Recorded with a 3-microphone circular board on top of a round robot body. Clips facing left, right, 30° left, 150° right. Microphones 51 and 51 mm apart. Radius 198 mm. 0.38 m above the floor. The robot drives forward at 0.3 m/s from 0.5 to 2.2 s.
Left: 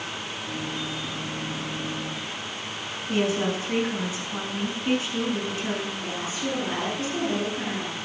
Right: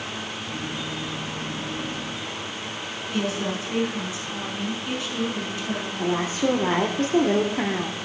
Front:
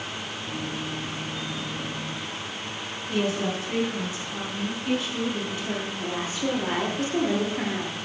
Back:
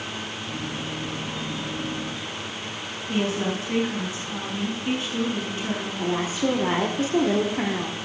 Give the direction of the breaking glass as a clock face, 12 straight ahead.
I don't hear breaking glass.